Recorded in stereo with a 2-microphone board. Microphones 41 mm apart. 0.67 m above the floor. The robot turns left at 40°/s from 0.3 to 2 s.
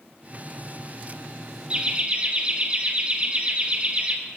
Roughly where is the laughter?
Right.